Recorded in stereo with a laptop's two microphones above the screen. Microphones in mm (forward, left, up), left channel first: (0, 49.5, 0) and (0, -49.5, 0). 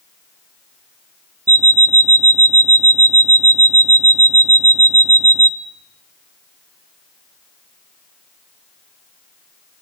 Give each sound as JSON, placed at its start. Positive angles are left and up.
{"t": 1.5, "sound": "an alarm clock", "side_deg": -35, "distance_m": 0.8}